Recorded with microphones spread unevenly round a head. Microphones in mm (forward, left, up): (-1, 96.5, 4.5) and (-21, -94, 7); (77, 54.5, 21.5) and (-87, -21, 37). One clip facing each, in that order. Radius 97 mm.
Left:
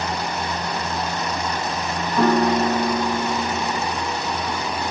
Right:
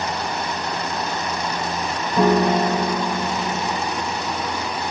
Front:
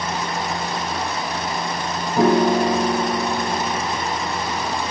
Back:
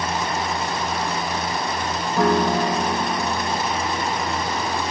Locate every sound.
2.2 s a piano: 30° right, 0.6 m